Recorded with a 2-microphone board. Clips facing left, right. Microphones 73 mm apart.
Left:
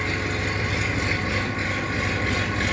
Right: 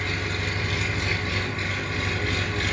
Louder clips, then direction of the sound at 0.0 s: Left 3 dB; 25° left (ahead or behind).